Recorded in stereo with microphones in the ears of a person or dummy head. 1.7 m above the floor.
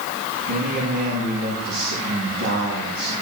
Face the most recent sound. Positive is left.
turn(degrees=-55)  # may be behind; listen again after turning